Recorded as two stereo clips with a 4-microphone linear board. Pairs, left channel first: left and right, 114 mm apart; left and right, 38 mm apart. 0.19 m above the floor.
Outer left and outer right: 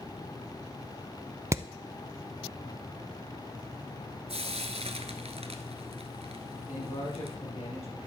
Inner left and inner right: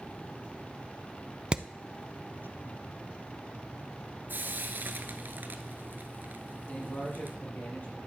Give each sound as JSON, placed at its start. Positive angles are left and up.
{"t": 1.5, "sound": "hammering", "side_deg": -25, "distance_m": 0.5}
{"t": 4.3, "sound": "frying", "side_deg": -65, "distance_m": 1.1}
{"t": 6.7, "sound": "a man speaking", "side_deg": 65, "distance_m": 5.5}